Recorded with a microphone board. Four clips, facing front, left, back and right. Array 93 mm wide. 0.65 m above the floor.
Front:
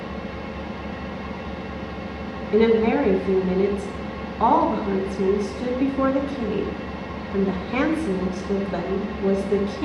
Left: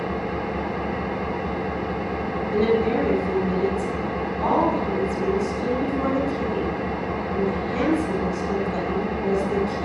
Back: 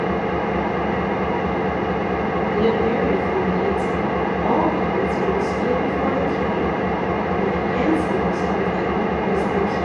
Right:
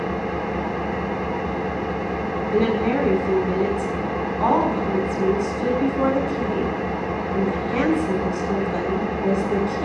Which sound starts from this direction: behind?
An engine running, at 0.0 s.